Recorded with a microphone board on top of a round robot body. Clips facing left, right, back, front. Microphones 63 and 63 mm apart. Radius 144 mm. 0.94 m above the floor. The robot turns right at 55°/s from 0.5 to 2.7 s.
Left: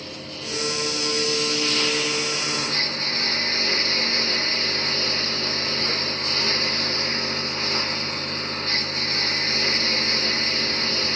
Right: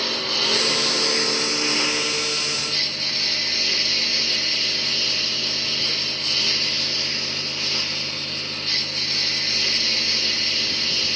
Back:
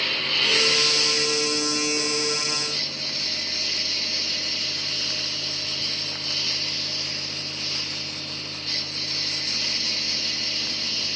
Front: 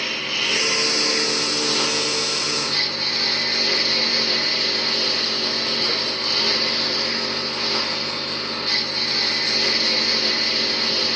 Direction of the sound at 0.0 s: 85° right.